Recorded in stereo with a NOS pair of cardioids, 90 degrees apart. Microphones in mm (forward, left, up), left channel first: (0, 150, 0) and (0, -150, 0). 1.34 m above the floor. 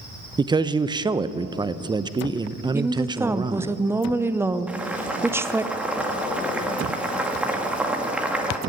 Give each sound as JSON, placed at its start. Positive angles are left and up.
{"t": 0.4, "sound": "a man speaking", "azimuth_deg": -15, "distance_m": 0.7}
{"t": 2.7, "sound": "a woman speaking", "azimuth_deg": -10, "distance_m": 0.7}
{"t": 4.7, "sound": "boiling", "azimuth_deg": -5, "distance_m": 2.0}